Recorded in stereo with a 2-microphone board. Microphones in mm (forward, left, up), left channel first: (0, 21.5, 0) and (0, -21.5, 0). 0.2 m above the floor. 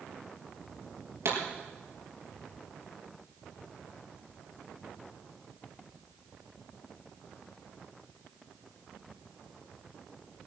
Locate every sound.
1.2 s a pop: 70° right (ahead or behind), 4.5 m